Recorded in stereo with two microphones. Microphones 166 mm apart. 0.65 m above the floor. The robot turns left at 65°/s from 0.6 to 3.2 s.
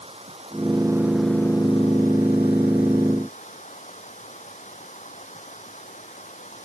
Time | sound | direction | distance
0.0 | running water | 140° right | ?